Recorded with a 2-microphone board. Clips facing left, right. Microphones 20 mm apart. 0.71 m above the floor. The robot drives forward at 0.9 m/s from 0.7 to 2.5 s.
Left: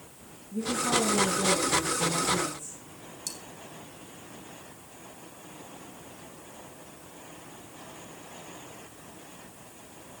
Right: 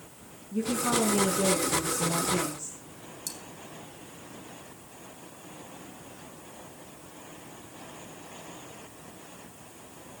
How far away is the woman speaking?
About 7 m.